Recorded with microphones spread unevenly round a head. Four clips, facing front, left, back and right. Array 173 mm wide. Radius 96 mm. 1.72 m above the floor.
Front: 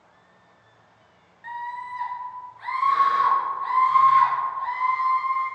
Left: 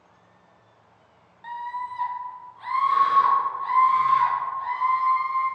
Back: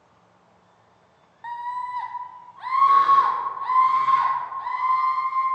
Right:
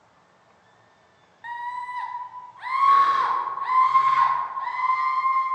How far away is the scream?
About 0.9 m.